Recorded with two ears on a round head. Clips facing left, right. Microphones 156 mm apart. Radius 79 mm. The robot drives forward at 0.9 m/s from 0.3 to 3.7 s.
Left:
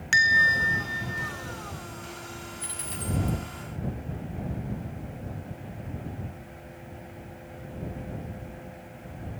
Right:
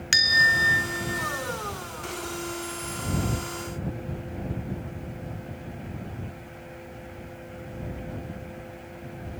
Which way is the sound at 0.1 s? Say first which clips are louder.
Even; 45° right (ahead or behind).